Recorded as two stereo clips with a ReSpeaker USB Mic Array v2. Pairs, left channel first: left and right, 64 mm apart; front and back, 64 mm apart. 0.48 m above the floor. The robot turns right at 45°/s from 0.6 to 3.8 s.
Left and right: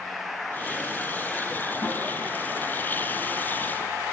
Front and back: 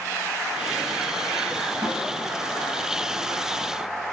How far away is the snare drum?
About 9.5 m.